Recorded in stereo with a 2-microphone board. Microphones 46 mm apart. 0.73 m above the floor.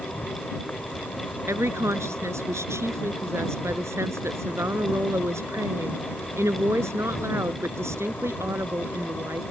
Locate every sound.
0.0 s an insect: 50° left (ahead or behind)
1.5 s a woman speaking: 80° right